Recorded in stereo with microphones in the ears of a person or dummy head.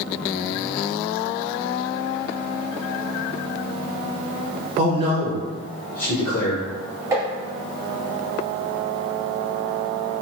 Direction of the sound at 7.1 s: 10° right (ahead or behind).